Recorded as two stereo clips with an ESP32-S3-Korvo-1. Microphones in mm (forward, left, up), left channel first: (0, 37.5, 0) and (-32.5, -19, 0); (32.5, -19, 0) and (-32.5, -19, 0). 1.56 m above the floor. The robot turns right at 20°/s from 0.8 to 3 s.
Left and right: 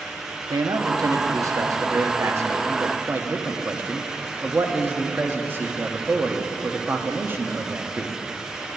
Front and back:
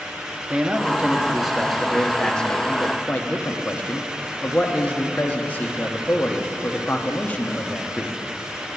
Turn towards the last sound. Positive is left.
turn(degrees=-65)